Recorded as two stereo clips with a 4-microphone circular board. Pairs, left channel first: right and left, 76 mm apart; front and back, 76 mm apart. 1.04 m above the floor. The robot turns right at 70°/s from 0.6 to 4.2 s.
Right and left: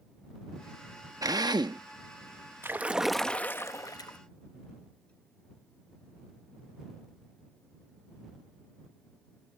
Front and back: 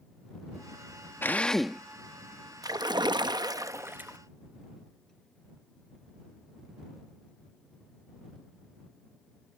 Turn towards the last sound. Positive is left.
turn(degrees=-105)